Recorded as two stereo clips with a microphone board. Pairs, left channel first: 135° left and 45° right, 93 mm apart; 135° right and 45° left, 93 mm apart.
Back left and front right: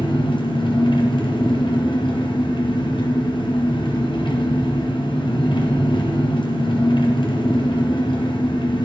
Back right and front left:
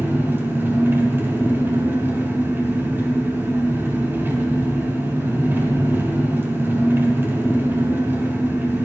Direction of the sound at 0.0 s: 110° left.